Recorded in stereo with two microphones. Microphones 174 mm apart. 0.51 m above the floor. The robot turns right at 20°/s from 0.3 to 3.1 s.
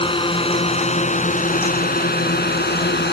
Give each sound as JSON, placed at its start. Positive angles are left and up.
{"t": 0.0, "sound": "a drone", "side_deg": 30}